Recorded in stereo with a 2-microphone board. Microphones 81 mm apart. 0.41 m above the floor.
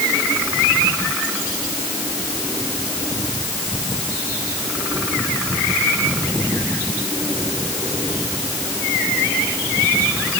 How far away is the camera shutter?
I don't hear a camera shutter.